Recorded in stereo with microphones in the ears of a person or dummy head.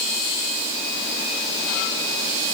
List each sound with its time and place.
Only background noise.